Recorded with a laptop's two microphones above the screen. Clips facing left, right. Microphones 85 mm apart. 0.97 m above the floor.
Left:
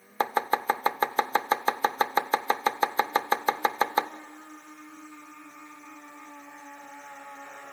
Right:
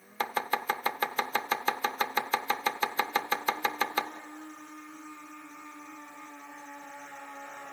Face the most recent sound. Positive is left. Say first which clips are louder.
# left 5 dB
turn(degrees=30)  # may be behind; listen again after turning